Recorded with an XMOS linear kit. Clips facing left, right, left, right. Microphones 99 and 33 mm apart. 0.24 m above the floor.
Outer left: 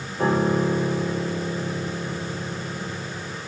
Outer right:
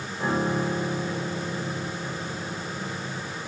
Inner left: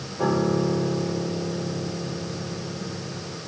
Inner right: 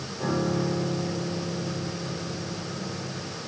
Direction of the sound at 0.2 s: 60° left (ahead or behind).